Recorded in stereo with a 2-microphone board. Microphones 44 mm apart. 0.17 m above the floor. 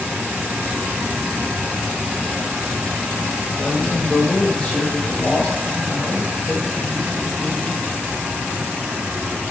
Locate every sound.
3.6 s a man speaking: 35° left (ahead or behind), 4 m; by 7.8 s 30° left (ahead or behind), 9 m